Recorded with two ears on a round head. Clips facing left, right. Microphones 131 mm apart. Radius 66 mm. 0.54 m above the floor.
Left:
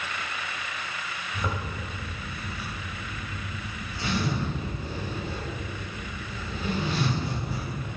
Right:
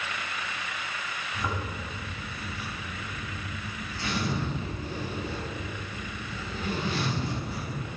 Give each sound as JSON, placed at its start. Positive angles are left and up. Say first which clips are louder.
{"t": 1.3, "sound": "a zipper", "louder": "left 1 dB", "side_deg": 15, "distance_m": 2.5}